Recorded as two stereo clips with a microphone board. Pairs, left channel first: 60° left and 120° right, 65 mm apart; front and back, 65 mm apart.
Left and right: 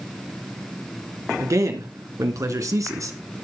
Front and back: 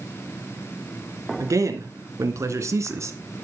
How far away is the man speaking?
About 3.5 m.